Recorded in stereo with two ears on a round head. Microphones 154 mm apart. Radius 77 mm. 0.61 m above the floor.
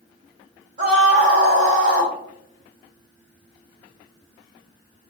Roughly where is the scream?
Right.